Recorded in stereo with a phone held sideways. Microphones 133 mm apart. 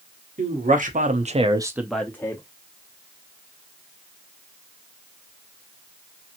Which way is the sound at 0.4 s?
80° right.